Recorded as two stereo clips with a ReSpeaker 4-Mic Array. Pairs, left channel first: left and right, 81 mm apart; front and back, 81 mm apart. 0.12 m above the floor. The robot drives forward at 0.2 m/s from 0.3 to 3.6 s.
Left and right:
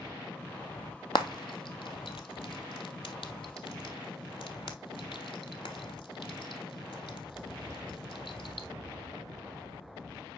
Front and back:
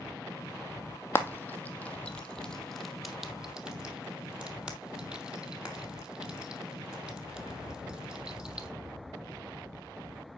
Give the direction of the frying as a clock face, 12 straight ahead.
10 o'clock.